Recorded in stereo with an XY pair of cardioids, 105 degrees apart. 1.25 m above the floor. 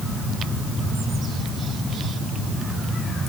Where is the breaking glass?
No breaking glass in this recording.